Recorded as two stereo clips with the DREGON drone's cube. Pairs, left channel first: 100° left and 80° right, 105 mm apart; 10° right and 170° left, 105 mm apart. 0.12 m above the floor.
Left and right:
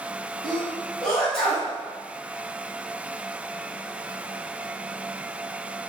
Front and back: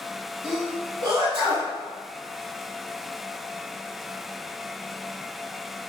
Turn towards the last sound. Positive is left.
turn(degrees=-170)